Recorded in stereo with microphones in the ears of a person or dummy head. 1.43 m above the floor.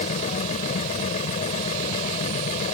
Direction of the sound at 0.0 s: 40° left (ahead or behind).